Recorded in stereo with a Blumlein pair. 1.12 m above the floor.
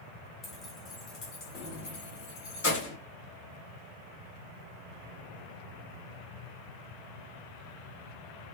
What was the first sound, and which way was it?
Keys jangling, 20° left.